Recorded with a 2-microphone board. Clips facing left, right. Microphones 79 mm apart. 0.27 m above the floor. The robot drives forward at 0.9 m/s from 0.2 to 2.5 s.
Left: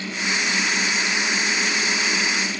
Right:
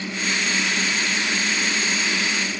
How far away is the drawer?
No drawer in this recording.